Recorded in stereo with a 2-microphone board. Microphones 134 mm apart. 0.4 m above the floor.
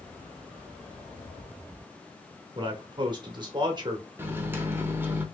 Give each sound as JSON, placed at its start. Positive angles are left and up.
{"t": 2.5, "sound": "a man speaking", "side_deg": -35, "distance_m": 0.9}
{"t": 4.2, "sound": "a microwave", "side_deg": -15, "distance_m": 0.6}